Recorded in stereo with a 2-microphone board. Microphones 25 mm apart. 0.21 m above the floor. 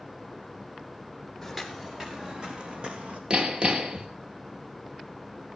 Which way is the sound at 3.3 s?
45° right (ahead or behind).